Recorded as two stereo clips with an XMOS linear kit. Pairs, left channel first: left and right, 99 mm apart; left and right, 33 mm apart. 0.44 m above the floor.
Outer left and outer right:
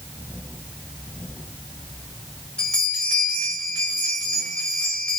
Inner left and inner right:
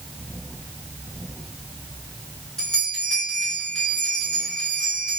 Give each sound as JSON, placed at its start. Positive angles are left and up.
{"t": 2.6, "sound": "a bell", "side_deg": 10, "distance_m": 1.2}